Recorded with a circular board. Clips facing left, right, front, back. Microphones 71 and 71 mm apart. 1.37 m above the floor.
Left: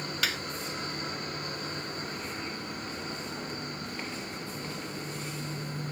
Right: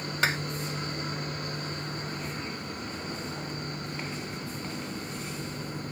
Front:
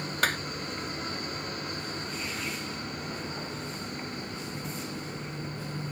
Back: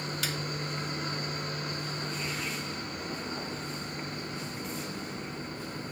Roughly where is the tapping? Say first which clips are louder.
Right 6 dB, front 11 dB; ahead right.